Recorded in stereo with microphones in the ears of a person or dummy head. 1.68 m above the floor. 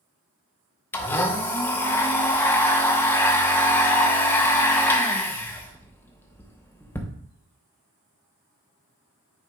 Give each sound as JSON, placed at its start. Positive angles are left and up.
{"t": 0.9, "sound": "a blender", "side_deg": 15, "distance_m": 0.9}